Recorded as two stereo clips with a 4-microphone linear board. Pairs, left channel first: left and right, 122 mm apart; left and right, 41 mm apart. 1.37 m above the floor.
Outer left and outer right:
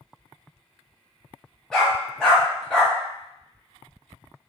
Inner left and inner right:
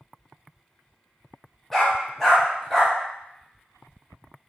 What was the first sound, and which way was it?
A dog barking, 5° left (ahead or behind).